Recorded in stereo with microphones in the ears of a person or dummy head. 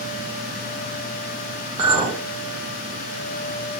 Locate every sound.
1.8 s a clink: 25° right (ahead or behind), 1.5 m